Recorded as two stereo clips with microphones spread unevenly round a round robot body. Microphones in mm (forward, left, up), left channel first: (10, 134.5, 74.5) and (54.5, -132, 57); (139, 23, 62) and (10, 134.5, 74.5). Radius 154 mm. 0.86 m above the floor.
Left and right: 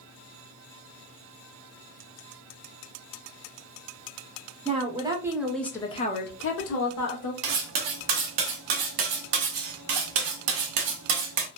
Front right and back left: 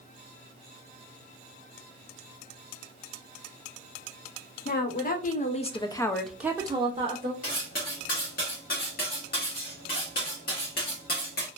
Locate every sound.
4.7 s a woman speaking: 15° right, 1.1 m; by 7.3 s 90° left, 0.9 m
7.4 s cutlery clinking: 100° right, 0.5 m